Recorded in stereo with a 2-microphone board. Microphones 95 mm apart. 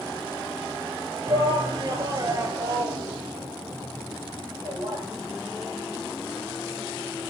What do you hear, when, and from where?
1.3 s a shout: 45° right (ahead or behind), 2.5 m; by 5.0 s 30° right (ahead or behind), 5.5 m